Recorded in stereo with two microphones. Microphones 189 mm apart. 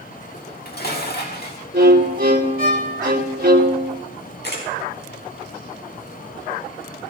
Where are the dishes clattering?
60° left (ahead or behind), 1.6 m.